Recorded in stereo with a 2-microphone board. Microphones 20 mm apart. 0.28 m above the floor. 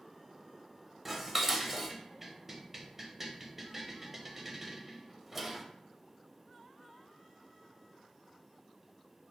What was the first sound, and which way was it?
Dishes clattering, 15° right (ahead or behind).